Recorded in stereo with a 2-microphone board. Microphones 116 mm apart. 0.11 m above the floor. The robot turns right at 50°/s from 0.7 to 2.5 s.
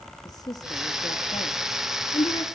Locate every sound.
0.2 s a woman speaking: 35° left (ahead or behind), 2.5 m; by 2.5 s 40° left (ahead or behind), 2.5 m